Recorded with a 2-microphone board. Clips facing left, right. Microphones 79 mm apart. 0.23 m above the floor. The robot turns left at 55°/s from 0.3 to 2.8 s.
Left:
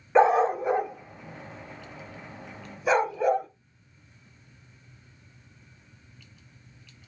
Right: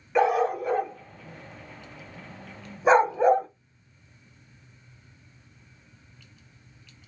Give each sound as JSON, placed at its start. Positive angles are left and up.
{"t": 0.1, "sound": "a dog barking", "side_deg": 30, "distance_m": 0.5}